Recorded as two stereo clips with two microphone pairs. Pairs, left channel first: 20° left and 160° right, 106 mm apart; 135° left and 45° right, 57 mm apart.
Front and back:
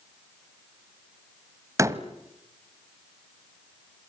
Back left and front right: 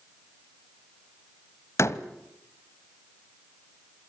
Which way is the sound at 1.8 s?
145° left.